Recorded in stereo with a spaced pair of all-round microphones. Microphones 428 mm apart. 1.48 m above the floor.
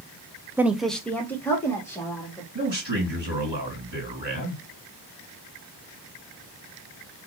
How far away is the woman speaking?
About 0.6 m.